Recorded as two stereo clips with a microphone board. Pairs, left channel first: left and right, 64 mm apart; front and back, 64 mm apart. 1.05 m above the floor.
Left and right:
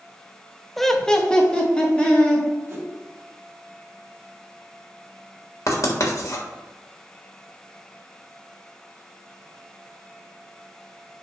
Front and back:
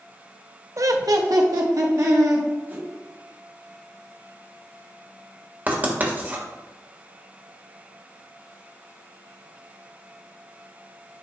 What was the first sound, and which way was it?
Laughter, 175° left.